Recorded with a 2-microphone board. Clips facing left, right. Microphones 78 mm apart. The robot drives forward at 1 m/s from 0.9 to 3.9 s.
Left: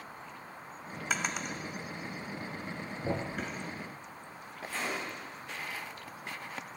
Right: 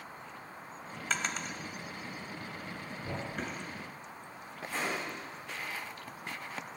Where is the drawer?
5° left (ahead or behind), 0.7 m; by 3.6 s centre (ahead or behind), 2 m.